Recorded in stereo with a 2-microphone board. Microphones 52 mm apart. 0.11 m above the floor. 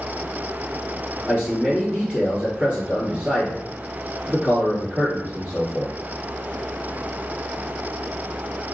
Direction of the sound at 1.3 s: 20° right (ahead or behind).